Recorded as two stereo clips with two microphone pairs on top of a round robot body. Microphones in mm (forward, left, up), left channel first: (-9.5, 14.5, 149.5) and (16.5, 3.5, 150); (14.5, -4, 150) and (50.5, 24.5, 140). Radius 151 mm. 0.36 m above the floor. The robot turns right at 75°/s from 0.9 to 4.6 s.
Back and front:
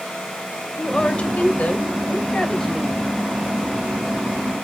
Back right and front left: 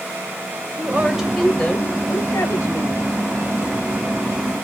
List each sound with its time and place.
0.8 s a woman speaking: 95° left, 2.5 m; by 3.1 s 100° right, 2.5 m